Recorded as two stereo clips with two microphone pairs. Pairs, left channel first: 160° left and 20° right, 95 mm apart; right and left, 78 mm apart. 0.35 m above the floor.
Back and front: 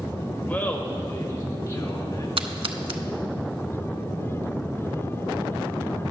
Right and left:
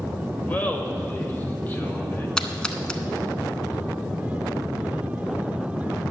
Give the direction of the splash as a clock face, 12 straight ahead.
12 o'clock.